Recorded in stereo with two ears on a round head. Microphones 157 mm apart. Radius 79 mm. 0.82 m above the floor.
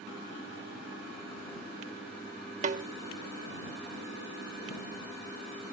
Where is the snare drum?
45° right (ahead or behind).